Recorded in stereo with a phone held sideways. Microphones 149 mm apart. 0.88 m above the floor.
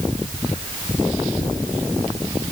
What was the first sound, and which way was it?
Only background noise.